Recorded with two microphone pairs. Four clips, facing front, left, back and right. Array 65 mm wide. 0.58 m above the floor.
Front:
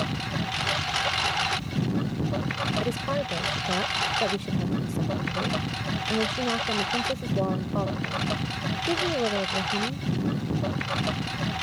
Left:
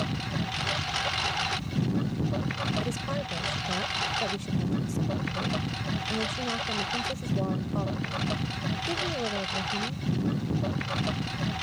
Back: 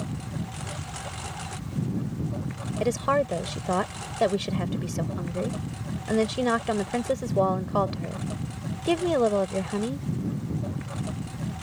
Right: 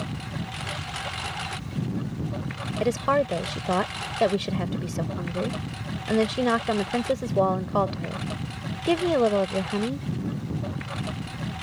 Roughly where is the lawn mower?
Ahead.